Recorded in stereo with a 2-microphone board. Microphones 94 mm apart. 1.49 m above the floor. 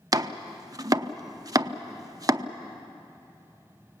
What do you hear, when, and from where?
0.1 s chopping: 40° right (ahead or behind), 0.7 m